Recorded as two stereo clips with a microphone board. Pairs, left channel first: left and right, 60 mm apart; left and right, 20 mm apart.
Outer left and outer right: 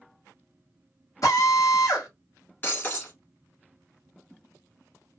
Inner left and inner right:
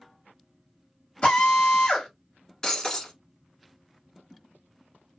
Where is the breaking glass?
35° left (ahead or behind), 1.5 m.